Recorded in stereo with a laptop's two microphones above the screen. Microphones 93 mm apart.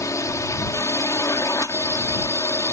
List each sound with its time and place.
0.0 s a drone: 35° left (ahead or behind)